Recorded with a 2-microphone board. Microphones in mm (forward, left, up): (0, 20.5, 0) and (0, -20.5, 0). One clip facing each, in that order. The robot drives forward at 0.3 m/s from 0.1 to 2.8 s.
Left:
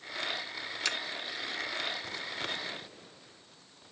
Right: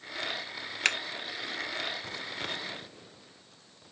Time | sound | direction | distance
0.8 | scissors | 55° right (ahead or behind) | 1.5 m